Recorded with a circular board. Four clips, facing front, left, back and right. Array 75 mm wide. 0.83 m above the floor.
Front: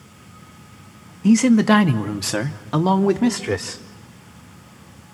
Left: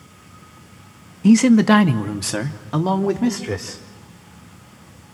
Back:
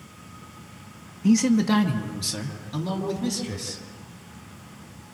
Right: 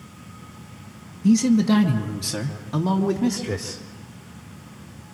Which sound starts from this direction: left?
A man speaking, at 1.2 s.